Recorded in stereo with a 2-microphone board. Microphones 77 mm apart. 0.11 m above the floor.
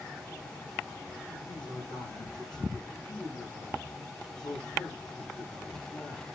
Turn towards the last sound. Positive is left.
turn(degrees=80)